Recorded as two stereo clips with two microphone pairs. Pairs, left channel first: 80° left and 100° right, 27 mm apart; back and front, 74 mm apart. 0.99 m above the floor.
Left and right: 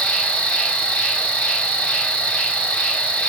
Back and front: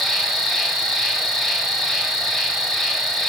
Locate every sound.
0.0 s an insect: 95° left, 1.2 m